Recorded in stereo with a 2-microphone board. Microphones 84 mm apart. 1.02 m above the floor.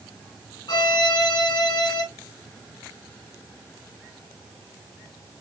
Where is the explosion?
No explosion in this recording.